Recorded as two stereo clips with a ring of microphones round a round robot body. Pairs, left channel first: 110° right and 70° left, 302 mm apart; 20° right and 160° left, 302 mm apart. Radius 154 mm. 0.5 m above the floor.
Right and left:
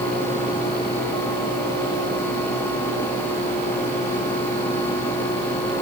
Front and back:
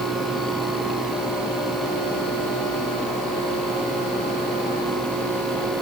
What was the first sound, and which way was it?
Only background noise.